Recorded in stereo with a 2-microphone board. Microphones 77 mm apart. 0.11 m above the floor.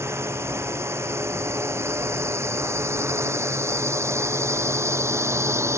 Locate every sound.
0.0 s a drone: 35° right (ahead or behind); by 5.8 s 40° right (ahead or behind)